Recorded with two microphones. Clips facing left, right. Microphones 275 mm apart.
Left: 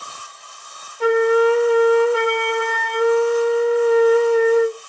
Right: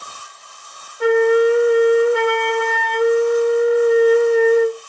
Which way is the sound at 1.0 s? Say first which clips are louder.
Right 2 dB; 10° right (ahead or behind).